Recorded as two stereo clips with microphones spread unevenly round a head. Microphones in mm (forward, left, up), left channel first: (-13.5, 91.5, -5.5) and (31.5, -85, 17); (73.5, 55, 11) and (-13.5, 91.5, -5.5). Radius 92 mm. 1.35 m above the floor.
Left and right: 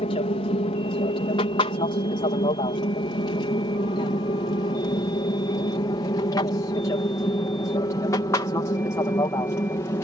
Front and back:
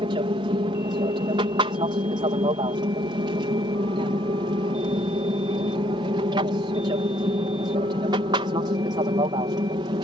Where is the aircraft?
160° left; by 10.0 s 175° left.